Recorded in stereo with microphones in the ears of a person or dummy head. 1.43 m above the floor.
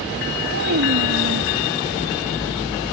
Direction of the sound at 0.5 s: 65° right (ahead or behind).